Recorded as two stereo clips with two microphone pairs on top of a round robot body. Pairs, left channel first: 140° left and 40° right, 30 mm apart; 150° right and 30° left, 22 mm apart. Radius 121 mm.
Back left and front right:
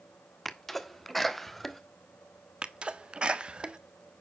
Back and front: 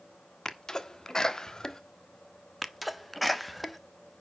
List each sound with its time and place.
0.5 s a sneeze: 140° right, 1.5 m
2.6 s a sneeze: 80° right, 1.3 m